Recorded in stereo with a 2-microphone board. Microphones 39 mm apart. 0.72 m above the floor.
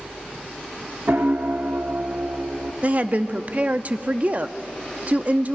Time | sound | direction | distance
1.1 | a piano | 70° right (ahead or behind) | 1.2 m
2.8 | a woman speaking | 40° right (ahead or behind) | 0.7 m